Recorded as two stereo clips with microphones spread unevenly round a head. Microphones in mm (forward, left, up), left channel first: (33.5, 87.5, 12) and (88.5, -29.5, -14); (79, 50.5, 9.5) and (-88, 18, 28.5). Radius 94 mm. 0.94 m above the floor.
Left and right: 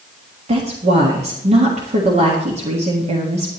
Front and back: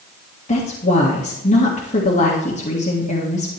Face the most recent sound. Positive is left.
turn(degrees=-40)